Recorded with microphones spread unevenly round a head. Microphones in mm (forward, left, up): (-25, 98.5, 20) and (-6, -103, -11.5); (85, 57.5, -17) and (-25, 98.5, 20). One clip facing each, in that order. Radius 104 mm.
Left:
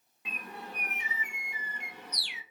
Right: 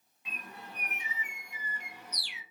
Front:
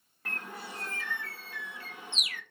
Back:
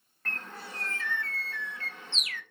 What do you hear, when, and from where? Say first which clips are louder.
0.2 s a bird: left 4 dB, even; 60° left, 0.6 m